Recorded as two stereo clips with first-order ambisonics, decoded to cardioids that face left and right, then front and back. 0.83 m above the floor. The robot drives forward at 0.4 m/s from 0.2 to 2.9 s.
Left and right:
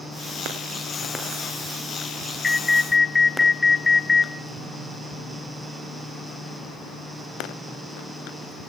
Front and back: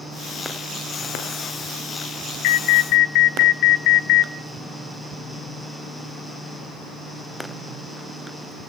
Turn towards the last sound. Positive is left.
turn(degrees=10)